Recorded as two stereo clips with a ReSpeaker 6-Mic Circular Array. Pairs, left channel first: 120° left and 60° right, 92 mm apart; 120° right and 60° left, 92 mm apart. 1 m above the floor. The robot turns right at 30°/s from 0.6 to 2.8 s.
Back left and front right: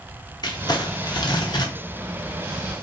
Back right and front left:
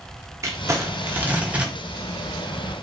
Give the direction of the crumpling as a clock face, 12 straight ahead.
8 o'clock.